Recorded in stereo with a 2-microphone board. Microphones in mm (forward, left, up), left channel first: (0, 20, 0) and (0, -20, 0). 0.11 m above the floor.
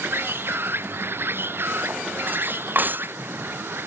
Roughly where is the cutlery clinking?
Right.